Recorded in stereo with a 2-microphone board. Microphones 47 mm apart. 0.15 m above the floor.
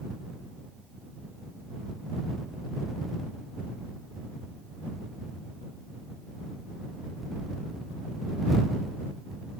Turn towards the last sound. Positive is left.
No sound to turn to.